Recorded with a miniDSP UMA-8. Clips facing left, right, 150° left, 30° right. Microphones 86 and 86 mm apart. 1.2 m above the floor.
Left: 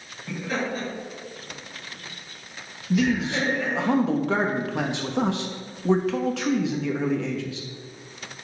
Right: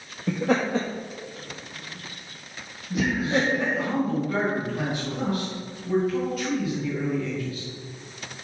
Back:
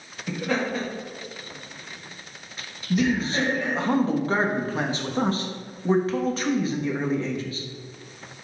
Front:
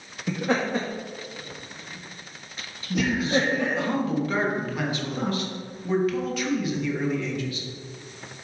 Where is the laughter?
100° right, 1.8 m; by 3.9 s 25° right, 2 m.